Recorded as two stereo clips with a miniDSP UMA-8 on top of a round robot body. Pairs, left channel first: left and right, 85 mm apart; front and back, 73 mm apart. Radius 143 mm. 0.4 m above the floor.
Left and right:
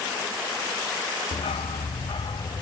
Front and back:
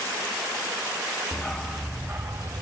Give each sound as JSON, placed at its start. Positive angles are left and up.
{"t": 1.3, "sound": "a dog barking", "azimuth_deg": 80, "distance_m": 1.3}